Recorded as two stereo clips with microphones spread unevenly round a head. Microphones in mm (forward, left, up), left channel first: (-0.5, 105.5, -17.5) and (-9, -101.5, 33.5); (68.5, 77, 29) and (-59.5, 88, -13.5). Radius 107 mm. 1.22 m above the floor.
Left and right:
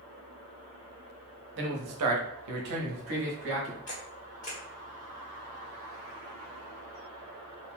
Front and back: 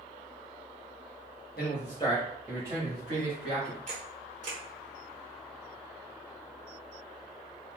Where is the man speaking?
55° right, 0.8 m; by 3.8 s 135° right, 1.4 m.